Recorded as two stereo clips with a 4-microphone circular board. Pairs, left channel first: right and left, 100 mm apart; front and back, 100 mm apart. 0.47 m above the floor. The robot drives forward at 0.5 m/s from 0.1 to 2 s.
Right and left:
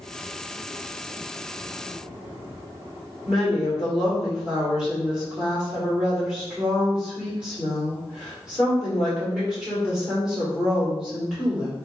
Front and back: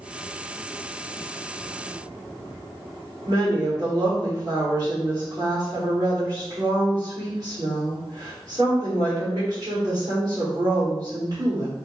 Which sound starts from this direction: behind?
A woman speaking, at 3.3 s.